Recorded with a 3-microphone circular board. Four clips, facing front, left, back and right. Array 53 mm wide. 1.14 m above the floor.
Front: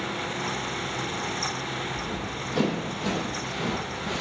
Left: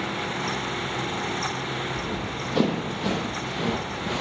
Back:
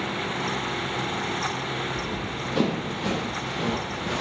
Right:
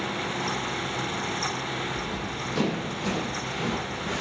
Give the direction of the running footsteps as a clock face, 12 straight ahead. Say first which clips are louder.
Left 2 dB, back 2 dB; 8 o'clock.